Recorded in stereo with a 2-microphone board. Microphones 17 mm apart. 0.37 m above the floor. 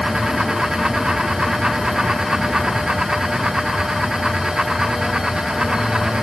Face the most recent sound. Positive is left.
No sound to turn to.